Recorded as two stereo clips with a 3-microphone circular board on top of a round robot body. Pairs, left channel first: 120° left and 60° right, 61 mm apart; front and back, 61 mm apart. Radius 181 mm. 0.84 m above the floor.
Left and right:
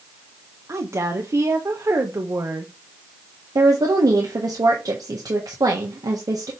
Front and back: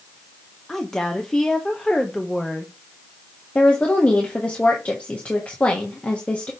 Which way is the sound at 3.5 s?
70° right.